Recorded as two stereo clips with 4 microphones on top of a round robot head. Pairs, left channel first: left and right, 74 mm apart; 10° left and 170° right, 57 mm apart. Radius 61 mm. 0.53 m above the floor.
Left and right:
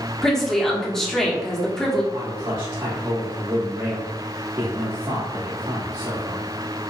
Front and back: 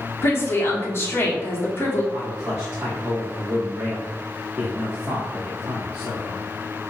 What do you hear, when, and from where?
0.2 s a woman speaking: 10° left, 1.4 m
2.1 s a man speaking: 110° right, 1.6 m